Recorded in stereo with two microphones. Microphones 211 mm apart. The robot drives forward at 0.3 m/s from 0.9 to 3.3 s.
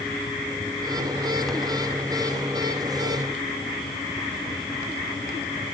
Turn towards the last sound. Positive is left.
No sound to turn to.